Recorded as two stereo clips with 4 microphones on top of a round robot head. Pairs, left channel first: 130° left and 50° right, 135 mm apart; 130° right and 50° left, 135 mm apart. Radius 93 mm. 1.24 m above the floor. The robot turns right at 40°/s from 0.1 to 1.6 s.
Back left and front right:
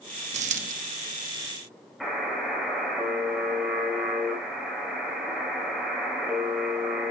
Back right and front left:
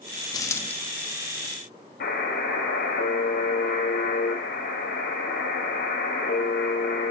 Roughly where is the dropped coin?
Right.